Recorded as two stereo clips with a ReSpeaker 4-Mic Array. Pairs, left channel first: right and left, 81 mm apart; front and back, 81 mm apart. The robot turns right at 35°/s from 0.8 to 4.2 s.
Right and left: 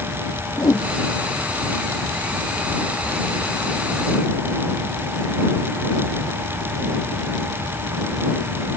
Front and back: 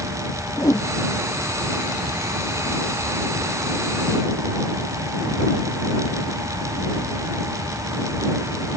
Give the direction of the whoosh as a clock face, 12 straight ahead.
2 o'clock.